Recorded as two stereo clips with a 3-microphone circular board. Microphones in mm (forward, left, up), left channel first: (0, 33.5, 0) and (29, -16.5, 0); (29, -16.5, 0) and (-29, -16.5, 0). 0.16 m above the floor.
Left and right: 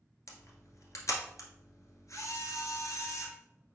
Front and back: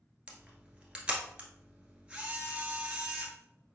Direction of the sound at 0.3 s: 115° left.